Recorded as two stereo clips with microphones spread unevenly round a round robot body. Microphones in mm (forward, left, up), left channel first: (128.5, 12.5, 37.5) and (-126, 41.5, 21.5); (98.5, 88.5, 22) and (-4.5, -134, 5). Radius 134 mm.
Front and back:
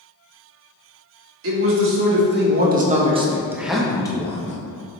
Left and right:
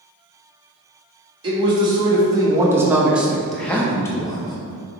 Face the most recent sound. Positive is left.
turn(degrees=5)